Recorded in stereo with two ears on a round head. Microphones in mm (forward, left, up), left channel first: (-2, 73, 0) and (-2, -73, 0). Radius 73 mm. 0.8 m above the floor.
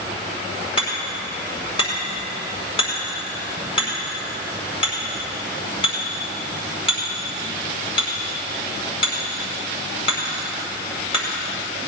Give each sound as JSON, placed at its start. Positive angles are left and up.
{"t": 0.8, "sound": "hammering", "side_deg": 35, "distance_m": 5.0}